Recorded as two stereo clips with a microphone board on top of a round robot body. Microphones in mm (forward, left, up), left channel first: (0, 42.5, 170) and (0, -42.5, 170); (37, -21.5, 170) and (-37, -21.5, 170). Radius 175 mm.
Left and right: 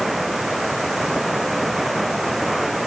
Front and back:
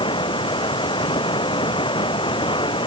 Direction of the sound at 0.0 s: Straight ahead.